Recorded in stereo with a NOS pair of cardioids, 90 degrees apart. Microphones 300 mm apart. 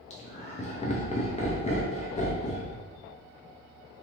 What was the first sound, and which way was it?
Laughter, 25° left.